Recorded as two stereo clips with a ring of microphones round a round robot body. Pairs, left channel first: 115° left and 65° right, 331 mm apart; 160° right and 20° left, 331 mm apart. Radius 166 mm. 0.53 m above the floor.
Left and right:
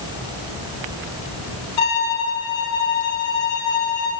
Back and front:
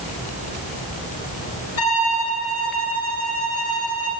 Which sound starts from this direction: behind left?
A violin, at 1.8 s.